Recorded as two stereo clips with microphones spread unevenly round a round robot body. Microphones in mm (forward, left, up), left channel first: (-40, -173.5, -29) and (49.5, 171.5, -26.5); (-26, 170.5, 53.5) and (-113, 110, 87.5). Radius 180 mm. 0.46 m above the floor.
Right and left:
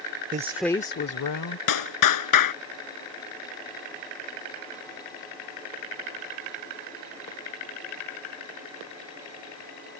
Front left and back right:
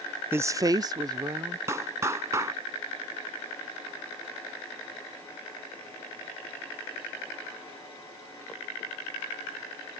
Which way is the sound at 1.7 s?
70° right.